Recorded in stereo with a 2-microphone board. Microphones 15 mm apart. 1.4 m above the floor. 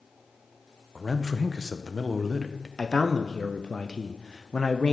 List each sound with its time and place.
0.9 s a man speaking: 15° left (ahead or behind), 0.6 m
2.8 s a man speaking: 55° left (ahead or behind), 0.6 m